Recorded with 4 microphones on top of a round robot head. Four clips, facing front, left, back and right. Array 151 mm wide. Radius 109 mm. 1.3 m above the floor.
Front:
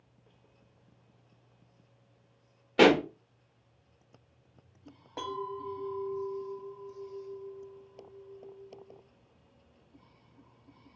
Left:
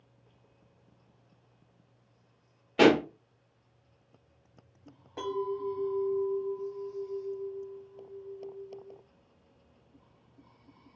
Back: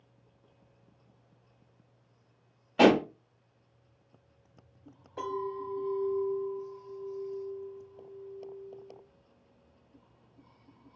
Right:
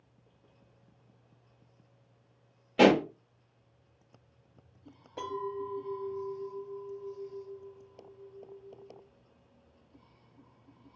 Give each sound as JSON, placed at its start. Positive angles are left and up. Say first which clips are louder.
{"t": 2.8, "sound": "a pop", "louder": "even, even", "azimuth_deg": -5, "distance_m": 1.1}
{"t": 5.2, "sound": "a clink", "louder": "left 3 dB, back 2 dB", "azimuth_deg": 0, "distance_m": 1.3}